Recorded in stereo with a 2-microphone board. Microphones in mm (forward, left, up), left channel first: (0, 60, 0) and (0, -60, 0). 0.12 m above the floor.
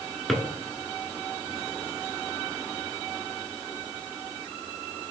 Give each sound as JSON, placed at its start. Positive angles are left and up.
{"t": 0.3, "sound": "a drawer", "side_deg": 0, "distance_m": 0.9}